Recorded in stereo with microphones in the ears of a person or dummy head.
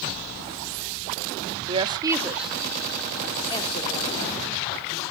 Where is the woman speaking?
25° right (ahead or behind), 0.9 m; by 5.0 s 45° left (ahead or behind), 1.8 m.